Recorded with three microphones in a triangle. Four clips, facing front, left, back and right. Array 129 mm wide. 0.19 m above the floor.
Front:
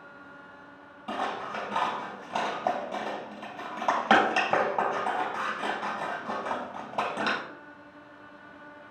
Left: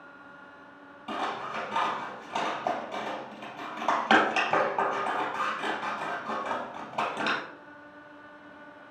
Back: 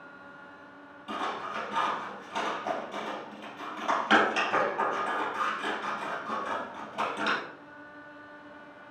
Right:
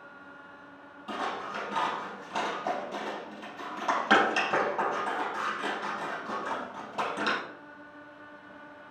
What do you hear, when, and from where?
1.1 s scissors: 10° left, 2.5 m